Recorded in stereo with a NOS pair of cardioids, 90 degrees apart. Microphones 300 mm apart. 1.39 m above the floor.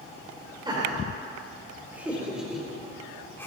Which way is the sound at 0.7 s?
15° right.